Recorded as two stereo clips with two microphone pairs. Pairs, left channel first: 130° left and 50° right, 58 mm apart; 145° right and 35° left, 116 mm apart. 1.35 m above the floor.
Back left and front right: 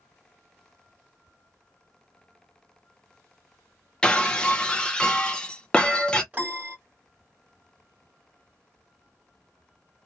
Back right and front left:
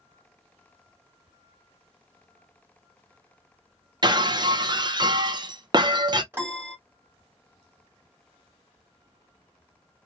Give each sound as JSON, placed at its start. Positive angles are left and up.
{"t": 4.0, "sound": "breaking glass", "azimuth_deg": 55, "distance_m": 0.6}
{"t": 6.3, "sound": "a piano", "azimuth_deg": -15, "distance_m": 1.3}